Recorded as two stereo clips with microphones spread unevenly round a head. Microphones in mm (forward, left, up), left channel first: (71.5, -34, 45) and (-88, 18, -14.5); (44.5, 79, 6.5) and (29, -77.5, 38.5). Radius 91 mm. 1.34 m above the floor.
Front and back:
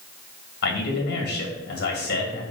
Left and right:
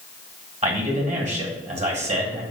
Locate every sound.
0.6 s a man speaking: 50° right, 2 m